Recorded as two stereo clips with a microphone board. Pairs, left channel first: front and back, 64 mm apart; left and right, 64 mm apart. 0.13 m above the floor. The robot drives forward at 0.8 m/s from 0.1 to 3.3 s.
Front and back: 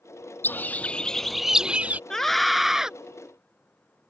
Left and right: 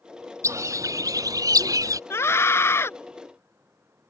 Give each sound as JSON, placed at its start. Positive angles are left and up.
{"t": 0.4, "sound": "a bird", "azimuth_deg": -55}
{"t": 2.1, "sound": "a scream", "azimuth_deg": 80}